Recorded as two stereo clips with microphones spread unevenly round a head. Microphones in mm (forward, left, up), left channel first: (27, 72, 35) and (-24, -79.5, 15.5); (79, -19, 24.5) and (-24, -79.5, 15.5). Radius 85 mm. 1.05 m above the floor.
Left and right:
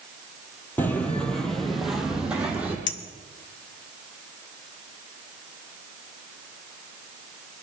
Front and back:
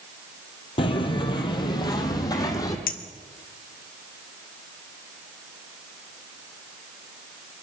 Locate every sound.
0.8 s footsteps: straight ahead, 1.9 m; by 2.8 s 25° right, 2.5 m
2.9 s a clink: 50° left, 1.0 m